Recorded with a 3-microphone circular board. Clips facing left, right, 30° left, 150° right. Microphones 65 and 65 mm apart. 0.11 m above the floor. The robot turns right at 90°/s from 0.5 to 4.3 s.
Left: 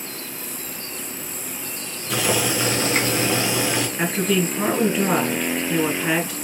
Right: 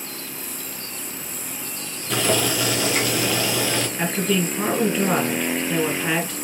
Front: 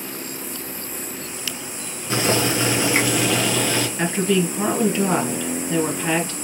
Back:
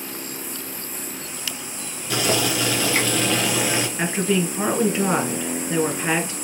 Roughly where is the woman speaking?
Behind left.